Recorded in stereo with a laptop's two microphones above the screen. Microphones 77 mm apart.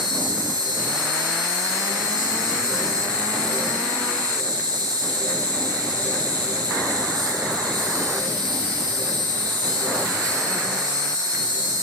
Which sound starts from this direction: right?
An insect, at 0.0 s.